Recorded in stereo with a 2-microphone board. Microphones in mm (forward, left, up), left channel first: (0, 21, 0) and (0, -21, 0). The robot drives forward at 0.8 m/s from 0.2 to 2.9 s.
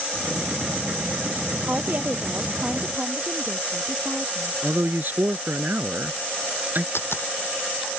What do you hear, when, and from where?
1.7 s a woman speaking: 45° right (ahead or behind); by 4.5 s 40° right (ahead or behind)
4.6 s a man speaking: 45° right (ahead or behind)
7.0 s a dropped coin: 65° left (ahead or behind)